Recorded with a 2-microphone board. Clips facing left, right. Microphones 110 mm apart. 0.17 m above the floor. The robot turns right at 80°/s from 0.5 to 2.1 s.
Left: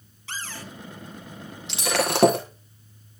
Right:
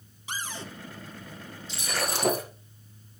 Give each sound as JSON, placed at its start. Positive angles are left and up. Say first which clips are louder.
{"t": 0.3, "sound": "a cupboard door", "louder": "even", "side_deg": -15, "distance_m": 1.7}
{"t": 1.7, "sound": "breaking glass", "louder": "left 7 dB", "azimuth_deg": 75, "distance_m": 4.5}